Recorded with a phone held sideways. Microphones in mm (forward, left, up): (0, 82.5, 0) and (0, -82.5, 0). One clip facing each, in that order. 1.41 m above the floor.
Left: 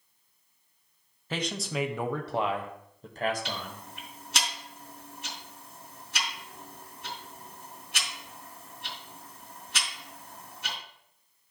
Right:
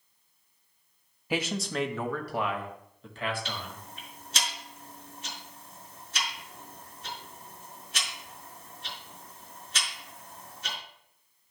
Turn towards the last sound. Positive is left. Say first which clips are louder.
# left 2 dB
turn(degrees=70)  # may be behind; listen again after turning